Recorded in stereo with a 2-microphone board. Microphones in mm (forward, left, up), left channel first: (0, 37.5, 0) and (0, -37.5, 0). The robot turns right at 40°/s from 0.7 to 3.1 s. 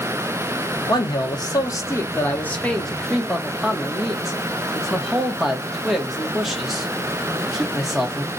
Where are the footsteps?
I don't hear footsteps.